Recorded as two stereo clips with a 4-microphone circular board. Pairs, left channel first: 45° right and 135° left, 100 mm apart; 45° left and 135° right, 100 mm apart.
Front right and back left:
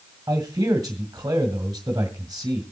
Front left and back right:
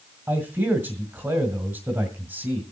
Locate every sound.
0.3 s a man speaking: 175° left, 1.9 m